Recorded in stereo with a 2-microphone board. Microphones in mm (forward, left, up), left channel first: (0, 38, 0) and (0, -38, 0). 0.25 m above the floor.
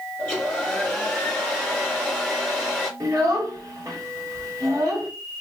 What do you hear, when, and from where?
0.2 s a hair dryer: 15° left (ahead or behind), 1.9 m
3.0 s a child speaking: 50° right (ahead or behind), 1.6 m